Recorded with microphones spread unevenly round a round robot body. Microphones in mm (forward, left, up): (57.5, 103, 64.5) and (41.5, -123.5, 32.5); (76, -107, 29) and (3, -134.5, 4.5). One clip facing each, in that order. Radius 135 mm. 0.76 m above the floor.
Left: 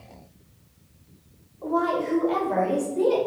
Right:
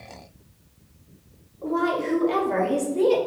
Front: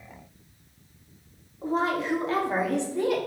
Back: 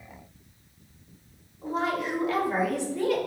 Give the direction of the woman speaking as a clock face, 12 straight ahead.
1 o'clock.